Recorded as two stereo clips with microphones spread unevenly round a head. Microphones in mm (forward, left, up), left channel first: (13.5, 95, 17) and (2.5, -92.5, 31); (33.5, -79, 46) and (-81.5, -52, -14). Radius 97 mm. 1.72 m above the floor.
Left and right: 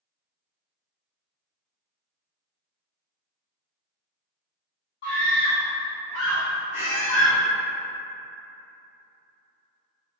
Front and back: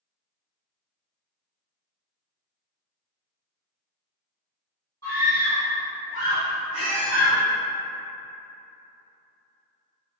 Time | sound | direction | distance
5.0 | a scream | 55° left | 1.7 m
6.7 | a squeak | 35° left | 2.0 m